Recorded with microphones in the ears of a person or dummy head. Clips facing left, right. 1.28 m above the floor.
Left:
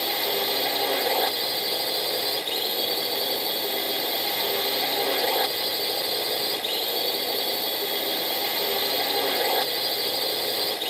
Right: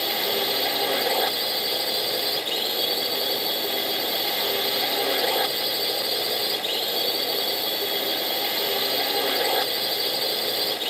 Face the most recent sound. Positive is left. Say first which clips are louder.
# right 1 dB
turn(degrees=0)  # may be behind; listen again after turning